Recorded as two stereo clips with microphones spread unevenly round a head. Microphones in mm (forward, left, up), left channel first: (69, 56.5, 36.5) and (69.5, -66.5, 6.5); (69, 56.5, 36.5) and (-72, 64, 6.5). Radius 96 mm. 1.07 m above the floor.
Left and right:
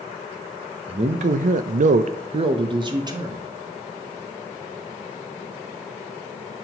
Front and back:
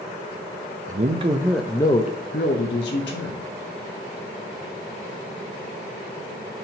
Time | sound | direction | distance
0.9 | a man speaking | 140° right | 0.6 m